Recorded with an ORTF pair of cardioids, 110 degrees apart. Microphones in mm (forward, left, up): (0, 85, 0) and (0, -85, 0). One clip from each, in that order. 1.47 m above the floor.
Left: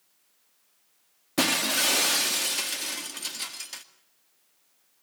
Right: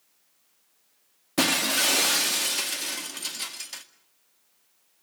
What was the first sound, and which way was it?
Breaking glass, straight ahead.